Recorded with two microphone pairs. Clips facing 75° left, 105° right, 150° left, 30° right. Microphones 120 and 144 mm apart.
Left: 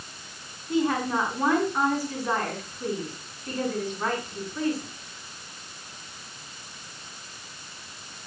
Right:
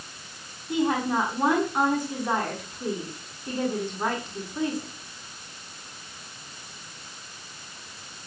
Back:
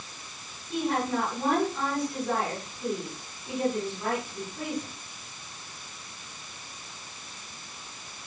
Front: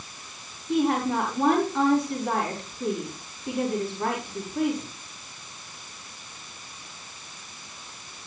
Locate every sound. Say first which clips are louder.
0.7 s a woman speaking: even, front 5 dB; 35° right, 6.5 m